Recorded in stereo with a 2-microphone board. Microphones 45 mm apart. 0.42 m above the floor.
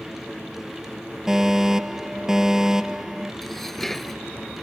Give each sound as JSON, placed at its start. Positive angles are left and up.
{"t": 1.3, "sound": "a fire alarm", "side_deg": -15}
{"t": 3.4, "sound": "dishes clattering", "side_deg": 5}